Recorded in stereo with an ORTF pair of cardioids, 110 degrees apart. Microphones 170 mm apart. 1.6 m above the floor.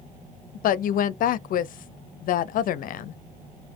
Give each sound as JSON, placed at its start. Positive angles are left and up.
{"t": 0.6, "sound": "a woman speaking", "azimuth_deg": 55, "distance_m": 0.5}